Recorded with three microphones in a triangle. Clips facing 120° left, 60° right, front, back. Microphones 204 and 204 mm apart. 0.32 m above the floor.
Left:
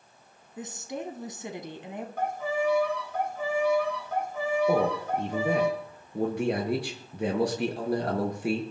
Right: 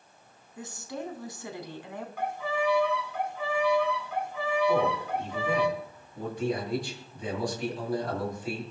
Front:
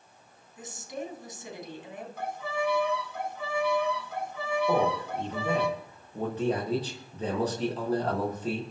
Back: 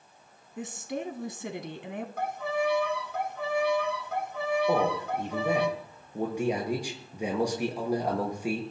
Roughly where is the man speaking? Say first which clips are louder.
Left 1 dB, even; left.